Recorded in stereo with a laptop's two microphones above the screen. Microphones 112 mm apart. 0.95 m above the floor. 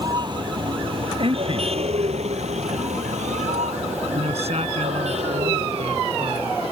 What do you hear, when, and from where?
0.0 s a vehicle: 40° right (ahead or behind); by 6.7 s 55° right (ahead or behind)
1.2 s a man speaking: 55° right (ahead or behind)
4.1 s a man speaking: 70° right (ahead or behind)